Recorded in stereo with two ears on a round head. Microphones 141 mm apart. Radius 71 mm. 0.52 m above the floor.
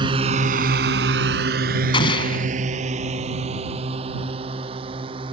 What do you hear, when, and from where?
0.0 s a drone: 30° right (ahead or behind); by 5.3 s 35° right (ahead or behind)
1.9 s an explosion: 30° left (ahead or behind)